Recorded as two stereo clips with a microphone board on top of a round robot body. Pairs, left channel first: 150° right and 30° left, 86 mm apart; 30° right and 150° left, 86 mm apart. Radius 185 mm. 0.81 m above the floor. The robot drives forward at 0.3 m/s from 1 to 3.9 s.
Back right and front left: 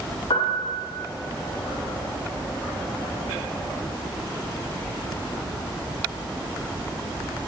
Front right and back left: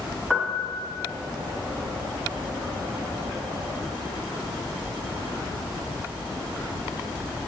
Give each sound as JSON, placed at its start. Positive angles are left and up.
{"t": 0.3, "sound": "a piano", "azimuth_deg": -125, "distance_m": 1.3}